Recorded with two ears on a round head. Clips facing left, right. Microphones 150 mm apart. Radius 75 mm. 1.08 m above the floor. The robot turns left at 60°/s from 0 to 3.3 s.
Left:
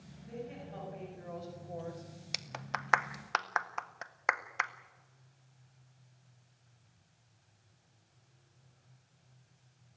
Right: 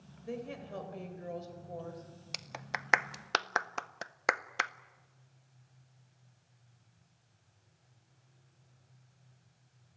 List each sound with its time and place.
0.2 s a woman speaking: 85° right, 5 m; by 2.0 s 165° left, 5 m
2.3 s a clap: 5° left (ahead or behind), 0.6 m; by 4.7 s 40° right (ahead or behind), 0.6 m